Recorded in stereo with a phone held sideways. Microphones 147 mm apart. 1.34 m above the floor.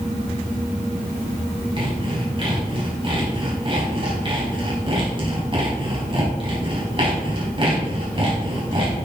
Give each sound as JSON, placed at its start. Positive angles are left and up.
{"t": 1.8, "sound": "sawing", "side_deg": -35, "distance_m": 4.0}